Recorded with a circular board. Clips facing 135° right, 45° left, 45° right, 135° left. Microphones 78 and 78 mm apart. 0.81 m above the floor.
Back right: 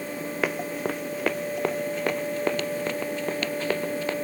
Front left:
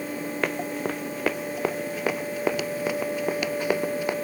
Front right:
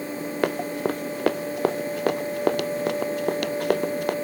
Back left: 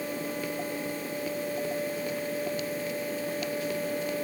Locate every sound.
0.4 s running footsteps: 50° right; by 4.2 s 30° right